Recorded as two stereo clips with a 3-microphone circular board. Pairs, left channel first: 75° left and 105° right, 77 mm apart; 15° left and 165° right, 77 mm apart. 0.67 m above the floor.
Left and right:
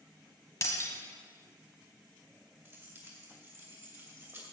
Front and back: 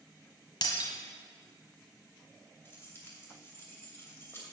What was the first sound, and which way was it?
Breaking glass, 30° left.